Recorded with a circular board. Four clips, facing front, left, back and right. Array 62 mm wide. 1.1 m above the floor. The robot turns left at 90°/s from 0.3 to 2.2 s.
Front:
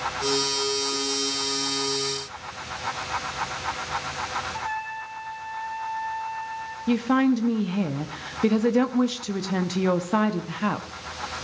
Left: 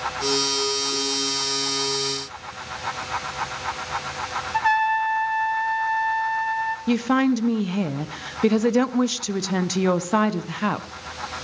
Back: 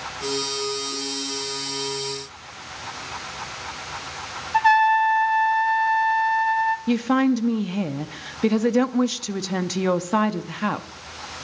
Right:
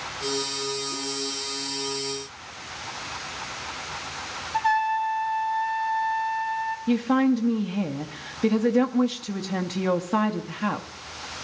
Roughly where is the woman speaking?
Left.